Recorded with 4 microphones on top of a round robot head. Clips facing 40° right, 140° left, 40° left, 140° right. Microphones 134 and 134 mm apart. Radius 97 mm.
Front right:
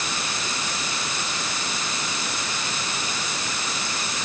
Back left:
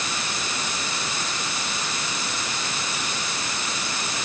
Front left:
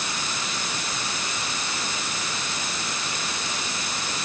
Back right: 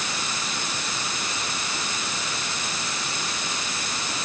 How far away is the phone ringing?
No phone ringing in this recording.